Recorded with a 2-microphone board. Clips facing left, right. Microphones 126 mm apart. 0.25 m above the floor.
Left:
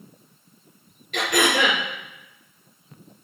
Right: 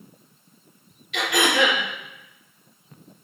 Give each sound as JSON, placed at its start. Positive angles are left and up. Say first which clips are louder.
{"t": 1.1, "sound": "throat clearing", "louder": "even", "side_deg": 40, "distance_m": 2.0}